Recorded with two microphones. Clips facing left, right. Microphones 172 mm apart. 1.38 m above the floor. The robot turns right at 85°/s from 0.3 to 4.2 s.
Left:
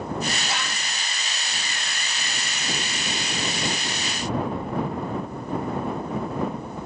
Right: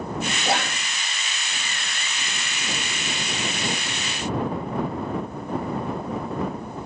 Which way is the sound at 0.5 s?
65° right (ahead or behind).